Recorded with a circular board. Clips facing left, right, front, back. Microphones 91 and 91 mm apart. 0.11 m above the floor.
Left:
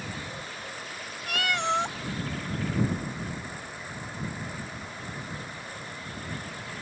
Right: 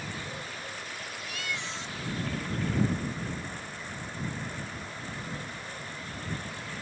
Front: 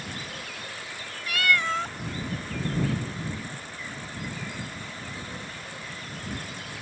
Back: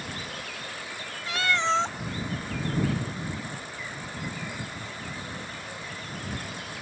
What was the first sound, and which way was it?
A cat meowing, 115° left.